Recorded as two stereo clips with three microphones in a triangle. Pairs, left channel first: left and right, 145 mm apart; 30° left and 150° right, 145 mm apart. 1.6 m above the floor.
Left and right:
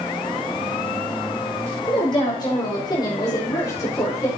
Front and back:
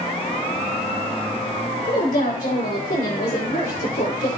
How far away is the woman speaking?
About 5 m.